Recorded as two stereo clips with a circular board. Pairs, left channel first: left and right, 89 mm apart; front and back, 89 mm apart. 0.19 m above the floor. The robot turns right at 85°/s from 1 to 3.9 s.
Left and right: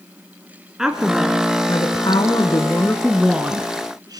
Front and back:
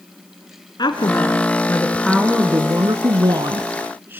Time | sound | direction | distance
0.8 | a woman speaking | 5° right | 2.0 m